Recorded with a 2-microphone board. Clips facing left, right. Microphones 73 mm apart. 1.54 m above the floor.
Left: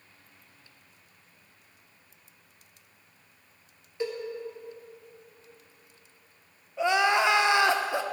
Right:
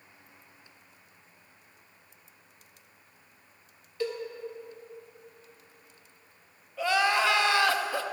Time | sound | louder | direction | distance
4.0 | a cowbell | even | 20° left (ahead or behind) | 1.6 m
6.8 | crying | left 2 dB | 20° left (ahead or behind) | 0.6 m